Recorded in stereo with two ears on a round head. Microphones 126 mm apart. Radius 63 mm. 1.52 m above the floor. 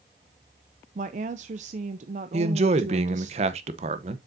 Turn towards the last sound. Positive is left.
turn(degrees=-45)  # may be behind; listen again after turning